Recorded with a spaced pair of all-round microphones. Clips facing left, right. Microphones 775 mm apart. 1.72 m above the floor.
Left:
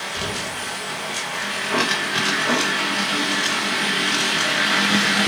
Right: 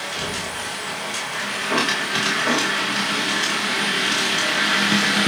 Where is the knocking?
65° left (ahead or behind), 6 m.